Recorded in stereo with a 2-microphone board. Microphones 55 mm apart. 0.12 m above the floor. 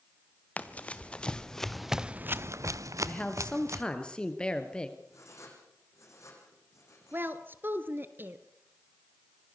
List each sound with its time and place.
0.6 s running footsteps: 25° left (ahead or behind), 2 m; by 3.8 s 65° right (ahead or behind), 1.8 m
3.0 s a man speaking: 20° left (ahead or behind), 2.5 m
5.1 s writing: 70° left (ahead or behind), 7.5 m
7.1 s a woman speaking: 40° right (ahead or behind), 1.5 m